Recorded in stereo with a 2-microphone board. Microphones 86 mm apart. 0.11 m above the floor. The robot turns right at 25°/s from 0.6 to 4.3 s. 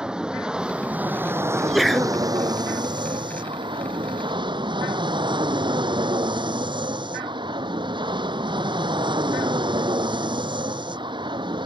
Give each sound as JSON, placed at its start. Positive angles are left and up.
{"t": 0.0, "sound": "an aircraft", "azimuth_deg": -170}
{"t": 1.5, "sound": "a sneeze", "side_deg": -5}